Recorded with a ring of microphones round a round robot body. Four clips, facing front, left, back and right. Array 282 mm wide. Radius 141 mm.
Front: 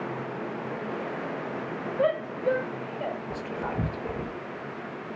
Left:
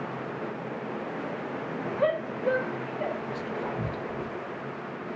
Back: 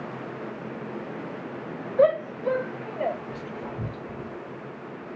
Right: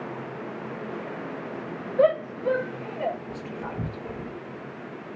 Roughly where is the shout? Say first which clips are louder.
Right 6 dB, back 6 dB; behind right.